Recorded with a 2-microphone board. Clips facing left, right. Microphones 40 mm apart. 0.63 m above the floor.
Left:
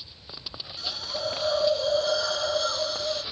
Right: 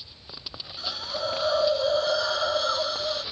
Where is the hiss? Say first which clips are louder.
Right 1 dB; 10° right (ahead or behind), 1.4 m.